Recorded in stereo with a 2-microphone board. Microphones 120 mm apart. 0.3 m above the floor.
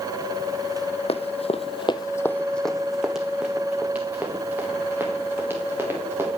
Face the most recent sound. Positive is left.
turn(degrees=-20)  # may be behind; listen again after turning